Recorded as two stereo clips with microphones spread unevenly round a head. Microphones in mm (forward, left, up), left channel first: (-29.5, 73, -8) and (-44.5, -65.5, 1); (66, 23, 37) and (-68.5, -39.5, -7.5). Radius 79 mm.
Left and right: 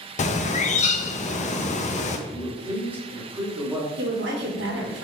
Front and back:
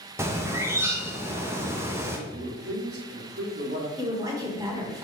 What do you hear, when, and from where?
0.2 s a bird: 125° left, 0.8 m
2.3 s a man speaking: 175° right, 2.5 m
4.0 s a woman speaking: 90° right, 1.7 m